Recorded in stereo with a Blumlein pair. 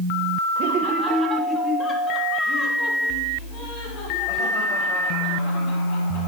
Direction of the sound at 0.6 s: 45° right.